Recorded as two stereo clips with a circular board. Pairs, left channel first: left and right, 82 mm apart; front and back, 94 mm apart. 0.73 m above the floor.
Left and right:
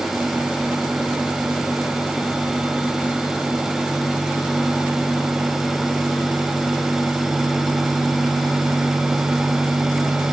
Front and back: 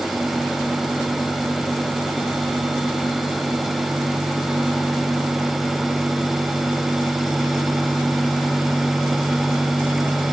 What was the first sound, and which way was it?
Only background noise.